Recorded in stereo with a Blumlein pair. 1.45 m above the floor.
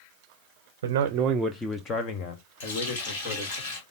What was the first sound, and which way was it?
A man speaking, 60° right.